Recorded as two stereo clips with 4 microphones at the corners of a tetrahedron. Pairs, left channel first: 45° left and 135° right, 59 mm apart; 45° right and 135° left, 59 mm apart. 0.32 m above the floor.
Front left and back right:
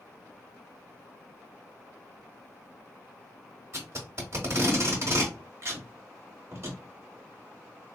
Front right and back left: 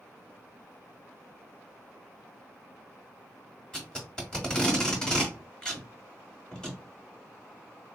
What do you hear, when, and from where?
3.7 s tape being pulled: 120° right, 0.9 m